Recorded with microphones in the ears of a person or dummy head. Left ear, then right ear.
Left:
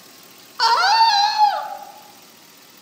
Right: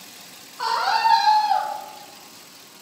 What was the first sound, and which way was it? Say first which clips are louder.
A scream: left 6 dB; 65° left (ahead or behind).